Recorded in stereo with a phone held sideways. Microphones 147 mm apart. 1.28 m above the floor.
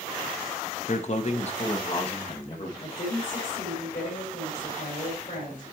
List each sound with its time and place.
0.9 s a man speaking: 55° left (ahead or behind), 0.7 m; by 2.7 s 40° left (ahead or behind), 2 m
2.8 s a woman speaking: 75° left (ahead or behind), 3.5 m